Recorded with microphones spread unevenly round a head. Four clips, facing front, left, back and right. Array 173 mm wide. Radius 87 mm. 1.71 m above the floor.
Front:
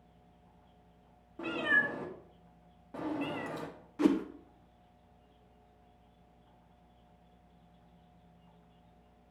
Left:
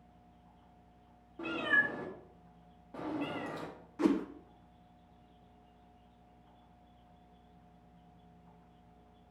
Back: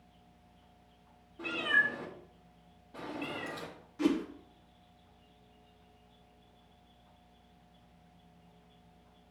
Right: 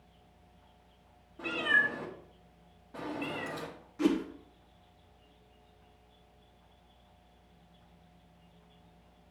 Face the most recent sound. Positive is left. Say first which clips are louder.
# right 1 dB, front 2 dB
turn(degrees=15)